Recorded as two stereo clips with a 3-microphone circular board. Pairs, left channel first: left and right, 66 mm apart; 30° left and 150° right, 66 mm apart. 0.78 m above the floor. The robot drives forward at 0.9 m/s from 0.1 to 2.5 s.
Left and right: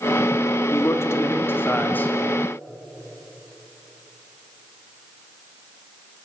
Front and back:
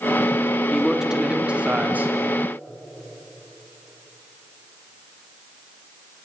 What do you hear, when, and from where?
0.7 s a man speaking: 120° left, 1.7 m; by 2.1 s 150° left, 2.5 m